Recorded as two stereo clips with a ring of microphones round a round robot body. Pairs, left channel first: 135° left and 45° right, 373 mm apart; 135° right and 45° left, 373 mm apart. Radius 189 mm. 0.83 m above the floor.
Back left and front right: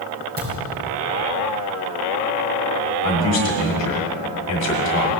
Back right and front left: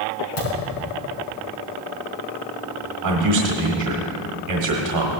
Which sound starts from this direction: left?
A man speaking, at 3.0 s.